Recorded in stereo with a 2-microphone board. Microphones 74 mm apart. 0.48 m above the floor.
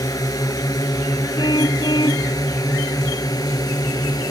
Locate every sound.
0.0 s a drone: 55° left (ahead or behind); by 4.3 s 60° left (ahead or behind)
1.4 s a car horn: 75° left (ahead or behind)